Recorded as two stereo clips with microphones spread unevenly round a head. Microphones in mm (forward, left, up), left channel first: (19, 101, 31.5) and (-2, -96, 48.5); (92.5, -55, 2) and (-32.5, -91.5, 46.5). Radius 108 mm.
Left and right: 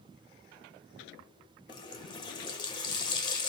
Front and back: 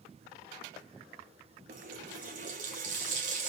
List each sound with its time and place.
1.7 s a running tap: 155° left, 0.5 m